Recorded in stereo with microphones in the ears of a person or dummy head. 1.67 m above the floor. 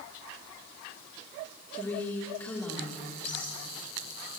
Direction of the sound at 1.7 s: 20° left (ahead or behind).